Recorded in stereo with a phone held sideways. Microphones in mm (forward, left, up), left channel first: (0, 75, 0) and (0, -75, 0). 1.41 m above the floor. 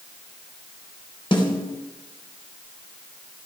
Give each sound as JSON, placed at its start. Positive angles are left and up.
{"t": 1.3, "sound": "a snare drum", "side_deg": 35, "distance_m": 3.5}